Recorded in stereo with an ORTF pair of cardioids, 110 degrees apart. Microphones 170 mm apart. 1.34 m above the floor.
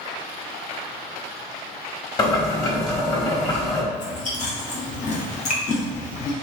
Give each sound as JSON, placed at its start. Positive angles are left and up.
{"t": 2.2, "sound": "boiling", "azimuth_deg": 25, "distance_m": 1.5}
{"t": 3.9, "sound": "chewing", "azimuth_deg": 45, "distance_m": 1.4}